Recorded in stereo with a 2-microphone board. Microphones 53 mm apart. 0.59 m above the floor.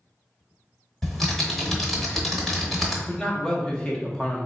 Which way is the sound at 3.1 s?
15° left (ahead or behind).